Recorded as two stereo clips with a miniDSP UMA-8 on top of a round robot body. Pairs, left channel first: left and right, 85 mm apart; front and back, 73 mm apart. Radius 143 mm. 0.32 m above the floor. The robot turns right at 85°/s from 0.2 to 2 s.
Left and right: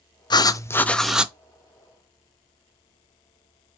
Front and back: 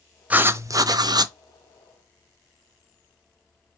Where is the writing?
115° left, 0.7 m; by 1.3 s 160° right, 0.7 m.